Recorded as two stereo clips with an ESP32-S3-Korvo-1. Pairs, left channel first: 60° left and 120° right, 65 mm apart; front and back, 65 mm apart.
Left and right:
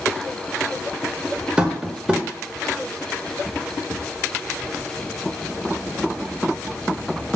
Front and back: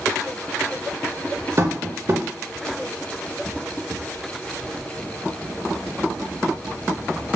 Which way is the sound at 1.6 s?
170° left.